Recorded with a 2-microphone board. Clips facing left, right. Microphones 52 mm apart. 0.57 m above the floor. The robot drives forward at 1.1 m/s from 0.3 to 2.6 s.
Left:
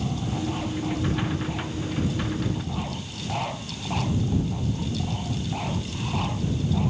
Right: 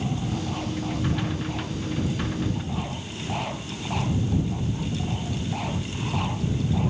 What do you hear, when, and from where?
Only background noise.